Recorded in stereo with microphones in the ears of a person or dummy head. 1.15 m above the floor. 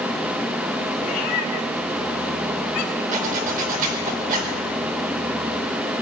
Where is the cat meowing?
45° left (ahead or behind), 2 m; by 3.0 s 55° left (ahead or behind), 2.5 m.